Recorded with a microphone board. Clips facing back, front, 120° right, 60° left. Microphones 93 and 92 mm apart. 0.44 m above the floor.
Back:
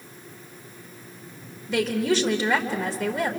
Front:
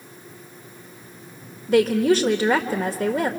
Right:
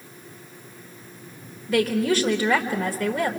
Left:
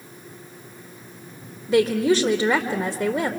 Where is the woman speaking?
5° left, 1.4 m.